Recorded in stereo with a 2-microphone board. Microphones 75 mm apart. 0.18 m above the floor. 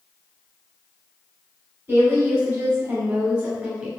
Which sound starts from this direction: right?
A woman speaking, at 1.9 s.